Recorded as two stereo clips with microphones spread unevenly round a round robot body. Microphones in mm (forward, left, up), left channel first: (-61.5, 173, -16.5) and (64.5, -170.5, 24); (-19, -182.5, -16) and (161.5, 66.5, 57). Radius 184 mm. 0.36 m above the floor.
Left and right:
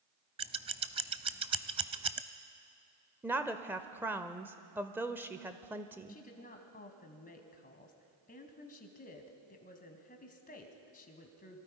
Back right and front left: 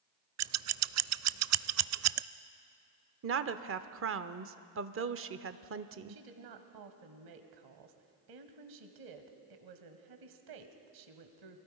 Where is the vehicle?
I don't hear a vehicle.